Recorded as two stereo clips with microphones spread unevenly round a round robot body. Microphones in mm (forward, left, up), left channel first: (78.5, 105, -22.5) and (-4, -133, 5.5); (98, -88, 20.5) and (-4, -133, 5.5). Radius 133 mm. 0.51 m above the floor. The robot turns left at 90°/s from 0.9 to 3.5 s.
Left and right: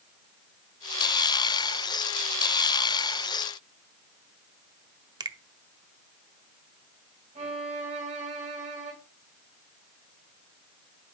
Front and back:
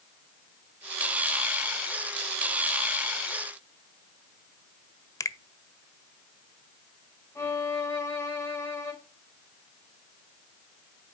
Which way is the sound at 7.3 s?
45° right.